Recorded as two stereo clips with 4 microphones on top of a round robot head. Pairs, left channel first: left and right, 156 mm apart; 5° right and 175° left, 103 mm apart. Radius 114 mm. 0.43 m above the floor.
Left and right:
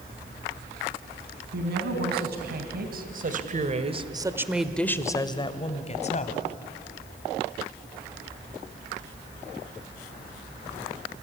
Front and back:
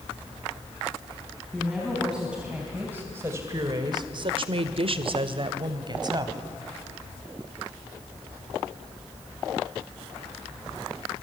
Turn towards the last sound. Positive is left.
turn(degrees=130)